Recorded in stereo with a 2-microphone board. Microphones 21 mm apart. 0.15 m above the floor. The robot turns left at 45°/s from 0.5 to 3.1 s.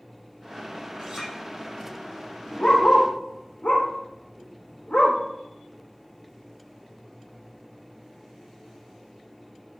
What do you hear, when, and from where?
1.0 s a clink: 20° right (ahead or behind), 4 m; by 1.3 s 10° right (ahead or behind), 4 m
2.6 s a dog barking: 65° left (ahead or behind), 4 m; by 5.2 s 85° left, 4 m